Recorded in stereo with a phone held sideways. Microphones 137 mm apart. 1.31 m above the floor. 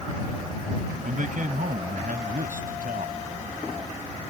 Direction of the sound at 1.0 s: 70° right (ahead or behind).